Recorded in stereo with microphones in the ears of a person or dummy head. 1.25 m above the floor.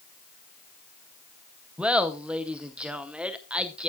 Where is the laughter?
5° right (ahead or behind), 0.8 m.